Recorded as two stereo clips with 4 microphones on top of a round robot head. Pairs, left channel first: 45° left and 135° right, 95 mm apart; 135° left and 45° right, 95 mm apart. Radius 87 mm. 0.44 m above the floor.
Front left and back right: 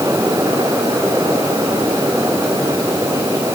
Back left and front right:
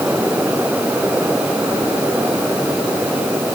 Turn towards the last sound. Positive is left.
No sound to turn to.